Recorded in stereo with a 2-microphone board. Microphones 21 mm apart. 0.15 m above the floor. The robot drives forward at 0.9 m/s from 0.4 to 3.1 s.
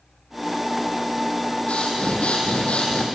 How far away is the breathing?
About 6.5 m.